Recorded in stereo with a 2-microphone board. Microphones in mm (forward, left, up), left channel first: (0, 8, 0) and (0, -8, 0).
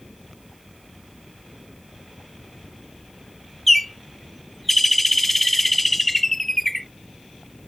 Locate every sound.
3.7 s a bird: 5° left (ahead or behind)